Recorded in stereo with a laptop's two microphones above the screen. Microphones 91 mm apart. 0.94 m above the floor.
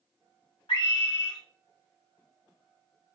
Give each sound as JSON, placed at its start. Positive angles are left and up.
{"t": 0.7, "sound": "a scream", "side_deg": 80, "distance_m": 1.9}